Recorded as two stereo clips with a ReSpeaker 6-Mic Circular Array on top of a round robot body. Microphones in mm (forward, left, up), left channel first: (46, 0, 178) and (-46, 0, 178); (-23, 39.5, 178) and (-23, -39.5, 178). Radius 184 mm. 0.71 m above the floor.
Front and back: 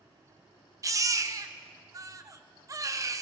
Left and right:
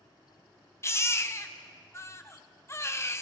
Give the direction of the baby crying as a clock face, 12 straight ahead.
7 o'clock.